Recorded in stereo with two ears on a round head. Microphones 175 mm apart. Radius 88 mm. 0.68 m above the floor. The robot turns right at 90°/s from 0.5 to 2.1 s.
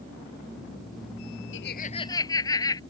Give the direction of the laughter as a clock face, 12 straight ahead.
8 o'clock.